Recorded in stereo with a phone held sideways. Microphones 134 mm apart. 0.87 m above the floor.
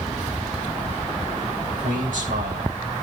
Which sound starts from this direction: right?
A man speaking, at 1.7 s.